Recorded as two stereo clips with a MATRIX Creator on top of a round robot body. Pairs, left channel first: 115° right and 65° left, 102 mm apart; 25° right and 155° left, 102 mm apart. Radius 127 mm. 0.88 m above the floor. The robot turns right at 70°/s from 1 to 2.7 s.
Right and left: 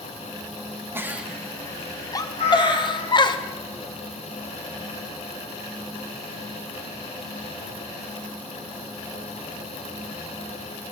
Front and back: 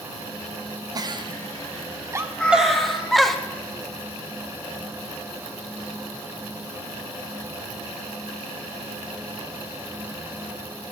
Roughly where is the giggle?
Behind left.